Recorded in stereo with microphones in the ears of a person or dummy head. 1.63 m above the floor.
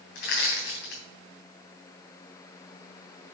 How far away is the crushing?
About 3 m.